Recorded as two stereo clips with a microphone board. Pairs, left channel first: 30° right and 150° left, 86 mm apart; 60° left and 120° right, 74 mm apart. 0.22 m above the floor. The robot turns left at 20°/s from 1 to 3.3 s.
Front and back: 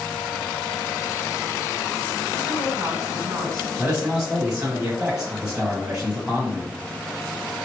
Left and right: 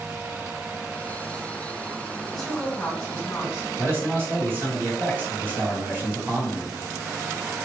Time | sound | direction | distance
2.3 | a woman speaking | 150° left | 1.7 m
3.8 | a man speaking | 140° right | 1.6 m